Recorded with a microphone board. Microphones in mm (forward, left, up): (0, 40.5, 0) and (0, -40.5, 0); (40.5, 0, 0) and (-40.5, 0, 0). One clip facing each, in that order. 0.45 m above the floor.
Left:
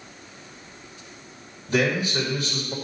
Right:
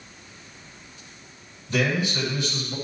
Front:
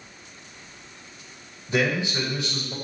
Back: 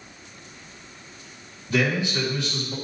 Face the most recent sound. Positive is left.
turn(degrees=55)